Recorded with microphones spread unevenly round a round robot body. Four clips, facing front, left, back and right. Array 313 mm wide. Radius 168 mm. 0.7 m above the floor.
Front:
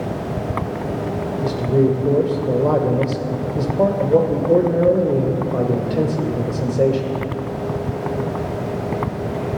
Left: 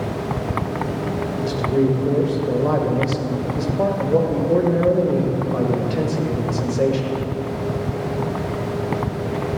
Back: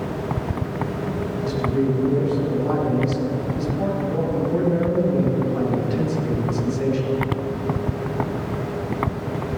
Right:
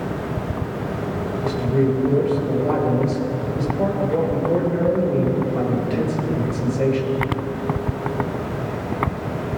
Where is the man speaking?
15° left, 2.5 m.